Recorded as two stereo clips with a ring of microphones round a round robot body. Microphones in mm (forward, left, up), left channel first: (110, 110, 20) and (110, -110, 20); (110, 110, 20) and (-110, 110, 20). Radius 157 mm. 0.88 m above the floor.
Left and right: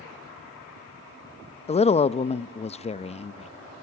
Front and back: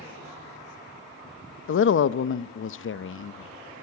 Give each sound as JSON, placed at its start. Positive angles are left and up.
{"t": 1.7, "sound": "a woman speaking", "azimuth_deg": 25, "distance_m": 0.7}